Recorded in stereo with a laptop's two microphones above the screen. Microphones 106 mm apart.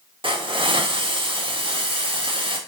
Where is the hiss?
50° right (ahead or behind), 1.7 m.